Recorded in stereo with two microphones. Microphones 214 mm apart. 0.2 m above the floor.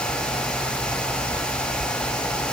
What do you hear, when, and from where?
Only background noise.